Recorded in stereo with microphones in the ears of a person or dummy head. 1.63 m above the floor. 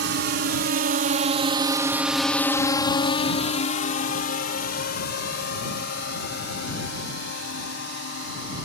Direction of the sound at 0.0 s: 65° right (ahead or behind).